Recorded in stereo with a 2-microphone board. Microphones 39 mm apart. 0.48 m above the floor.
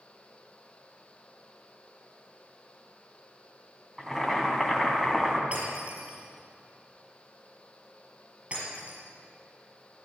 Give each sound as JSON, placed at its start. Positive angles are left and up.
{"t": 4.0, "sound": "boiling", "side_deg": -5, "distance_m": 2.5}
{"t": 5.5, "sound": "breaking glass", "side_deg": -35, "distance_m": 5.5}